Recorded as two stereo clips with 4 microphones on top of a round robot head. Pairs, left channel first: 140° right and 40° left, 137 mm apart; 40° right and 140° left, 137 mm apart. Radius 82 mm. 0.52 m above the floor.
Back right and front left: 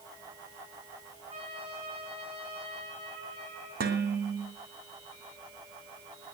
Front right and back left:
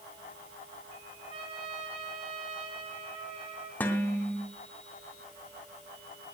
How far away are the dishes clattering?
About 2 m.